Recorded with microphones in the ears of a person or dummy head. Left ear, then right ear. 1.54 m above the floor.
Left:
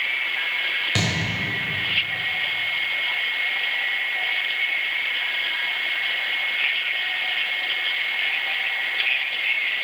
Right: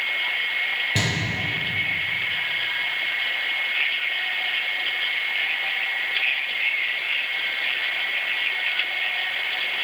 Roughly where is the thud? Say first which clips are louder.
Even; left.